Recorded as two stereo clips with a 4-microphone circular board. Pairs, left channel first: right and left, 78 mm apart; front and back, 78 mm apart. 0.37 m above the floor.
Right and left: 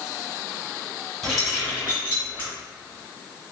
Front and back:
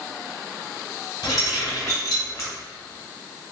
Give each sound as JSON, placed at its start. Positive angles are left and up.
{"t": 1.2, "sound": "keys jangling", "azimuth_deg": 0, "distance_m": 1.8}